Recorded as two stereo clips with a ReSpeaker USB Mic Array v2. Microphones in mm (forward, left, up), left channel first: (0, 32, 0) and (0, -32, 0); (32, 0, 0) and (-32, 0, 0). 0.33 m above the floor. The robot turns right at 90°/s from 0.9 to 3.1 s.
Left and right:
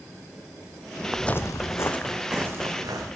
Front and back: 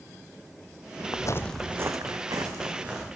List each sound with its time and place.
1.1 s footsteps: 15° right, 0.6 m; by 3.0 s 95° right, 2.5 m